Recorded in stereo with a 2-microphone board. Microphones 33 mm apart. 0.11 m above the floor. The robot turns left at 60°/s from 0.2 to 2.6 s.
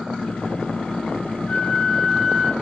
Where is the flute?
40° left, 1.3 m; by 2.5 s 25° right, 1.3 m.